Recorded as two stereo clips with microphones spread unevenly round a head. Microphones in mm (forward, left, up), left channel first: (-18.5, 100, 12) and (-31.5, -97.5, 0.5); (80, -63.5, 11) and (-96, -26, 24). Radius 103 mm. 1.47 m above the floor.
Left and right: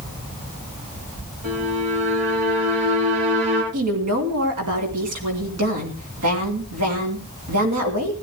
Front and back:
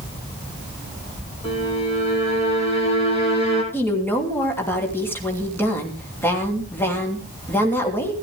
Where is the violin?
70° right, 9.5 m.